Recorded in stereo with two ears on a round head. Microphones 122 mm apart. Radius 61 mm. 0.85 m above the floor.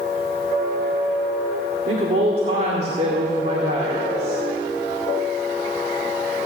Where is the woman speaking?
50° right (ahead or behind), 2 m.